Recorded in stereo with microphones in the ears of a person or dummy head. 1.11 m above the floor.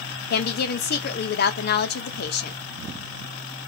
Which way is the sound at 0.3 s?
50° left (ahead or behind).